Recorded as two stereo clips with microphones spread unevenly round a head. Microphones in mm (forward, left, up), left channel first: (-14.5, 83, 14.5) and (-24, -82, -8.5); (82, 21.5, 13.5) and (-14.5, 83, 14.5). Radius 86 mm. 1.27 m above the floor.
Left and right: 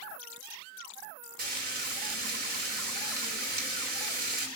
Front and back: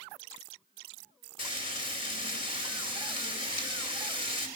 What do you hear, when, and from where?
1.4 s frying: 50° right, 3 m